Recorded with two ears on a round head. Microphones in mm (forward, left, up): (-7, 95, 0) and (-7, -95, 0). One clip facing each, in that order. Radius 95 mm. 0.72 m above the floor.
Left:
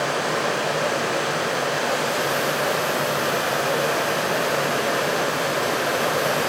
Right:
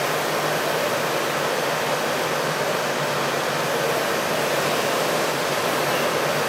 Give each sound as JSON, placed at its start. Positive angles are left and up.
{"t": 0.0, "sound": "running water", "side_deg": 15, "distance_m": 9.5}